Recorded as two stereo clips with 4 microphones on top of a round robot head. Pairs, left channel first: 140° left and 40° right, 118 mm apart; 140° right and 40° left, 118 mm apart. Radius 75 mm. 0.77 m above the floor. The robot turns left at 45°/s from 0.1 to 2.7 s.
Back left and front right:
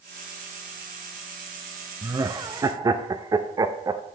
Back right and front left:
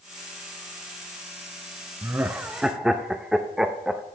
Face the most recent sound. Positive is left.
turn(degrees=-40)